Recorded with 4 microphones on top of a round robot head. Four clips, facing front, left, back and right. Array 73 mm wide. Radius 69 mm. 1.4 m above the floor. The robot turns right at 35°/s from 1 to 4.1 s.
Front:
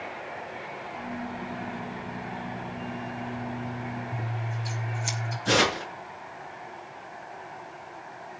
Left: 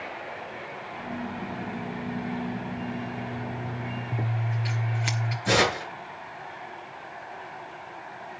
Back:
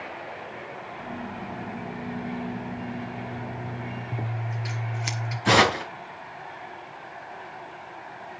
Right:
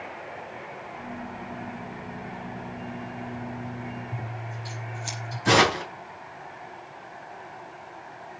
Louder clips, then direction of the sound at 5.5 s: Right 3 dB, back 5 dB; 145° right.